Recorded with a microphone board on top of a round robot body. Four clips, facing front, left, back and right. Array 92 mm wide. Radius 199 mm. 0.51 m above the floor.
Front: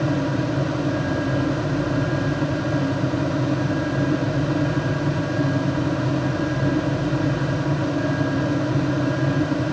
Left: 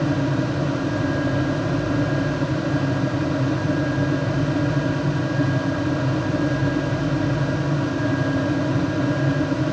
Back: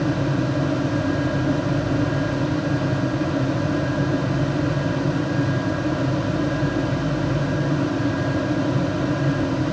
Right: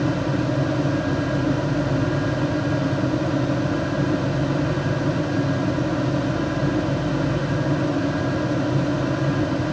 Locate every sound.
Only background noise.